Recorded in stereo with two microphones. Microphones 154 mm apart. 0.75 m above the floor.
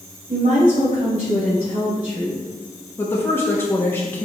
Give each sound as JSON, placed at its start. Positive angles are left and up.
{"t": 0.3, "sound": "a woman speaking", "side_deg": -60, "distance_m": 3.0}
{"t": 3.0, "sound": "a woman speaking", "side_deg": 15, "distance_m": 0.9}